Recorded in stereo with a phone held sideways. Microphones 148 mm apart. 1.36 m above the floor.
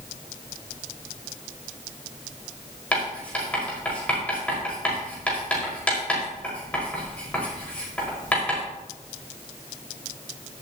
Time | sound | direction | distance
2.9 | writing | 10° left (ahead or behind) | 5.5 m